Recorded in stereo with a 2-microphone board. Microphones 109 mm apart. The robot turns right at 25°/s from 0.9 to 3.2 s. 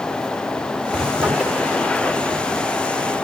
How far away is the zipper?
About 4 m.